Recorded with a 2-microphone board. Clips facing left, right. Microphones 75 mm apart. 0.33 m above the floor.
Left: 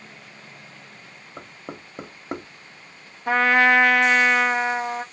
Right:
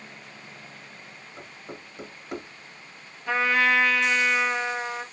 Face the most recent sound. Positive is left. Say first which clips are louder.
# left 5 dB
turn(degrees=55)  # may be behind; listen again after turning